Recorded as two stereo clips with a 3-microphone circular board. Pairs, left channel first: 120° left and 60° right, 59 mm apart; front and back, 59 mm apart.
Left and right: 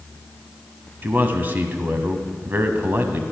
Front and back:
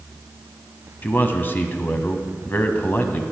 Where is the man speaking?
30° right, 1.2 m.